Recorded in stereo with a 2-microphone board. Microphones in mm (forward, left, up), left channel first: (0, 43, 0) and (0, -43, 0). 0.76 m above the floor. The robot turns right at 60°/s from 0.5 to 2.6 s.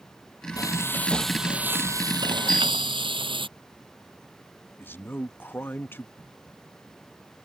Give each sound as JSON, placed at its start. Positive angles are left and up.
{"t": 0.6, "sound": "frying", "azimuth_deg": 135}
{"t": 2.5, "sound": "a bicycle bell", "side_deg": -50}
{"t": 4.8, "sound": "a man speaking", "side_deg": 25}
{"t": 6.2, "sound": "a crack", "side_deg": -55}